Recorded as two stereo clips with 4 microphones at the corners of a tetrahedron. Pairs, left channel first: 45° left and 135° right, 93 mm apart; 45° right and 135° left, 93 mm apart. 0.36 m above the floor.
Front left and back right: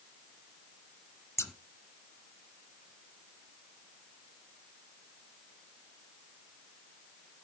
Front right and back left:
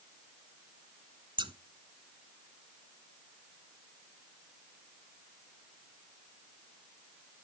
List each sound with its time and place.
1.4 s scissors: 105° left, 1.1 m